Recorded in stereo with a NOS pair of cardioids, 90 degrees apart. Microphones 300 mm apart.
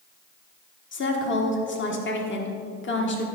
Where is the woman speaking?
40° left, 1.6 m.